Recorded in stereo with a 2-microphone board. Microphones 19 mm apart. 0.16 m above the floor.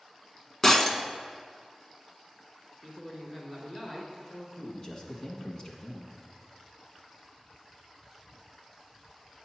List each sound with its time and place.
0.6 s breaking glass: 20° left (ahead or behind), 0.6 m
2.8 s a man speaking: 30° left (ahead or behind), 2.0 m
4.6 s a man speaking: 35° left (ahead or behind), 1.3 m